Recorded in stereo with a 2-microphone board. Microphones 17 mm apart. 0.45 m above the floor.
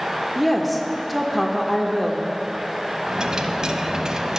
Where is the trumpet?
No trumpet in this recording.